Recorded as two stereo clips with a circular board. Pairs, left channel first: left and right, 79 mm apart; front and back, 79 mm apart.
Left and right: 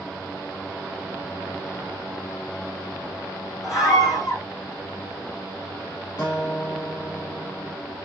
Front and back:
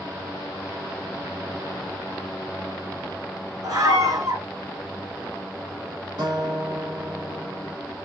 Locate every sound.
3.6 s a scream: 135° left, 8 m
6.2 s a guitar: 150° left, 7.5 m